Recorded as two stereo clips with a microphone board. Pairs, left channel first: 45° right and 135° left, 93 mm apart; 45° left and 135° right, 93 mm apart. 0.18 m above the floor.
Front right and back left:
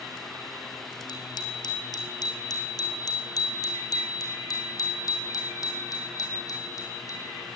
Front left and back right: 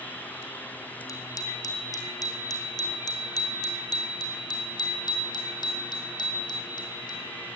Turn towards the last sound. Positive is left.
turn(degrees=5)